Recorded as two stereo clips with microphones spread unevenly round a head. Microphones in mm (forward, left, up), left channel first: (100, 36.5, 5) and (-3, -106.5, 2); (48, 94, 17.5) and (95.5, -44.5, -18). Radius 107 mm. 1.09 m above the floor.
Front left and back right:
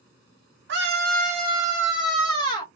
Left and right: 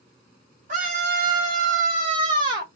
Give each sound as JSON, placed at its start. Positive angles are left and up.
{"t": 0.7, "sound": "a scream", "azimuth_deg": -115, "distance_m": 0.9}